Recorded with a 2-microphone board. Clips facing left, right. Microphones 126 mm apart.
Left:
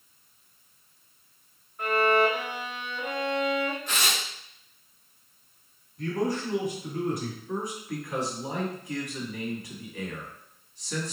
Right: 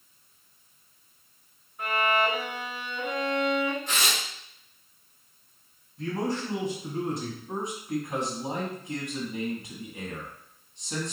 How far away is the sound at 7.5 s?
About 1.1 m.